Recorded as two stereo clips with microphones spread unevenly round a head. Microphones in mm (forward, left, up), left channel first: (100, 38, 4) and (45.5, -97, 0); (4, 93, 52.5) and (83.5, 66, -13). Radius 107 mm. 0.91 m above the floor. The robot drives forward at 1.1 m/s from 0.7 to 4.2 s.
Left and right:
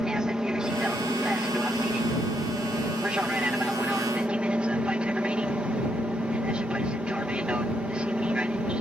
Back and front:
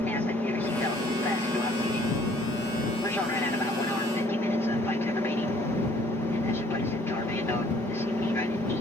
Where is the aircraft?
35° right; by 8.8 s 45° right.